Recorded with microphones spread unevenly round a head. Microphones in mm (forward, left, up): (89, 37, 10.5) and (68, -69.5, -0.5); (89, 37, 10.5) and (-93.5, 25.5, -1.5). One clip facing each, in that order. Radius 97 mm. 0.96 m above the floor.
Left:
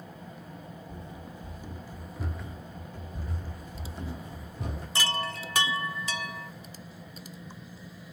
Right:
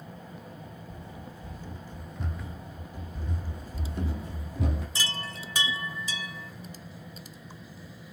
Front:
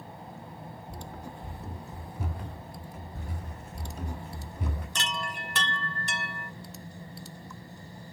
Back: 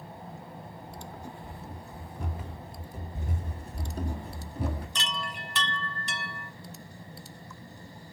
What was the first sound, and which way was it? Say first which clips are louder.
Running footsteps: left 1 dB, even; 20° left.